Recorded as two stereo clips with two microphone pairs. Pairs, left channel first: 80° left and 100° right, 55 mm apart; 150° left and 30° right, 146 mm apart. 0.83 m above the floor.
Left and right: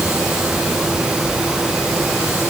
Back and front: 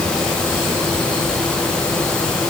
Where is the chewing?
I don't hear chewing.